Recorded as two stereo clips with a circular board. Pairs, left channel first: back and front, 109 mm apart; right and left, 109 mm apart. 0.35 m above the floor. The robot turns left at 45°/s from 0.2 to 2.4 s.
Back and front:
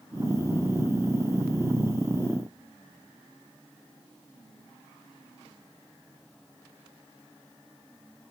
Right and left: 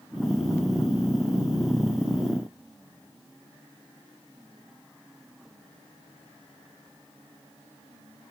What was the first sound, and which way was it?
Only background noise.